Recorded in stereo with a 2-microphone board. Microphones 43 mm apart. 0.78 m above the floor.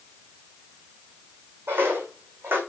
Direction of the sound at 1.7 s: 55° right (ahead or behind).